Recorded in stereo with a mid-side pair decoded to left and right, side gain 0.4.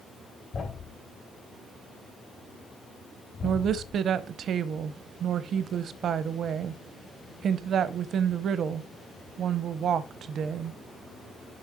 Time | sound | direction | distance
0.5 | a thud | 60° left | 3.5 m
3.4 | a woman speaking | 65° right | 0.7 m